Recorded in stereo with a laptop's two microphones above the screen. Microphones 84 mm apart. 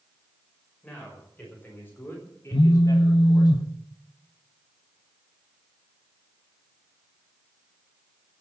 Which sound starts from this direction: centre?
A man speaking, at 0.8 s.